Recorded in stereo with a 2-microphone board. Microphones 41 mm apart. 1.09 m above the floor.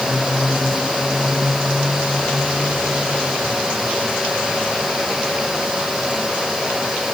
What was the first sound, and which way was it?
Only background noise.